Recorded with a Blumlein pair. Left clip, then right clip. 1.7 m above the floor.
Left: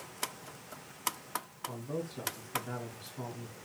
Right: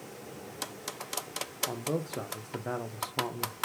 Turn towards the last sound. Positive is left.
turn(degrees=-45)